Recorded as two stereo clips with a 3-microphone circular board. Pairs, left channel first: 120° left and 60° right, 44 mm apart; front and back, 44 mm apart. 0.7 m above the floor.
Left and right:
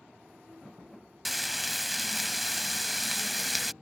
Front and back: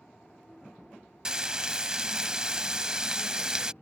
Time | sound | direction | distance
1.2 | frying | 150° right | ?